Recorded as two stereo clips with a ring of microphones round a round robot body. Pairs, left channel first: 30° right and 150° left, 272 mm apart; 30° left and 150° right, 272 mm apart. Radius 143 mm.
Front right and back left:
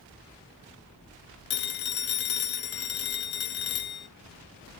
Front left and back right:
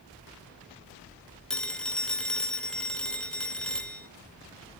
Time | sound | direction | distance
1.5 | a phone ringing | 55° right | 0.8 m